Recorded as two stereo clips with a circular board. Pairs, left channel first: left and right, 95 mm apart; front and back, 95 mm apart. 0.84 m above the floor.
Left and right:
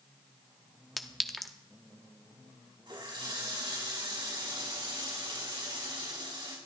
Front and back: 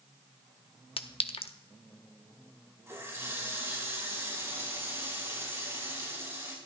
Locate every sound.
1.0 s a clink: straight ahead, 0.7 m
2.9 s a running tap: 120° right, 5 m